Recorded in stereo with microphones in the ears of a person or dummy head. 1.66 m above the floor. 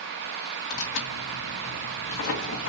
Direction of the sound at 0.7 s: 65° left (ahead or behind).